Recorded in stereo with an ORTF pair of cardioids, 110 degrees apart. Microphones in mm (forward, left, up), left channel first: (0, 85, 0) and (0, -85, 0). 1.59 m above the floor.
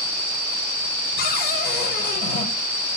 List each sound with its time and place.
1.2 s a cupboard door: 65° left, 8 m